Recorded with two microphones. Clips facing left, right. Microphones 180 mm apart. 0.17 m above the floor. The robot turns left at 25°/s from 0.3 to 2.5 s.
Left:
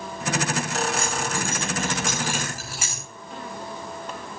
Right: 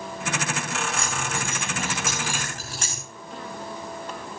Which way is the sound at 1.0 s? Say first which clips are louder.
Left 3 dB; 30° right (ahead or behind).